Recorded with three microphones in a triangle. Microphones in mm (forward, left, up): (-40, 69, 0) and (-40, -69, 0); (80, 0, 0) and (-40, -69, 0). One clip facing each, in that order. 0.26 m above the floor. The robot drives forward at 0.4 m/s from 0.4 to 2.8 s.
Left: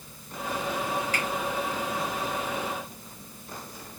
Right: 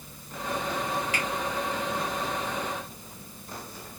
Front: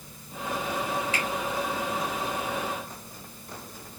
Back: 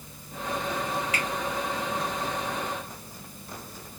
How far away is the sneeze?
No sneeze in this recording.